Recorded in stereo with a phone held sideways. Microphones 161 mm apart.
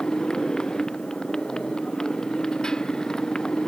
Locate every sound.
0.0 s a motorcycle: 5° left (ahead or behind)